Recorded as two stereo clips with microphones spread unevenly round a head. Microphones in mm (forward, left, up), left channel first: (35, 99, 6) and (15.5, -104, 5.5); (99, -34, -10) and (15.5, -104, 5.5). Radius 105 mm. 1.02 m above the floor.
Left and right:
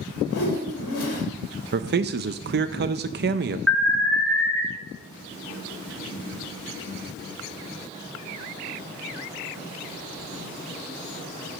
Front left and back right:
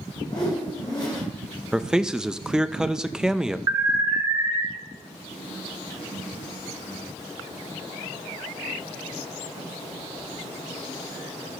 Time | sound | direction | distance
0.3 | a whoosh | 105° left | 2.5 m
1.7 | a man speaking | 55° right | 0.5 m
3.7 | an alarm | 165° left | 1.3 m